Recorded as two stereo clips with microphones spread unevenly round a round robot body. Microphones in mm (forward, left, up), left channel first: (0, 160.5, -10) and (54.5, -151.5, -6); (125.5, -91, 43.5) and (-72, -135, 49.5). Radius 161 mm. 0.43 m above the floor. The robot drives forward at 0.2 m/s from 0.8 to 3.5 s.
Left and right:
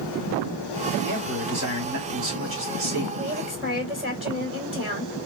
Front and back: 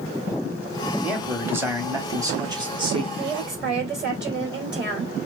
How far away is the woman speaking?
About 1.8 m.